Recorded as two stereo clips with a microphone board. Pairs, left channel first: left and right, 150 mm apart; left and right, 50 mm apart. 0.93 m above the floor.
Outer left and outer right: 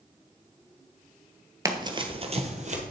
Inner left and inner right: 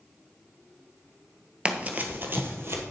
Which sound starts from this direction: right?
Running footsteps, at 1.6 s.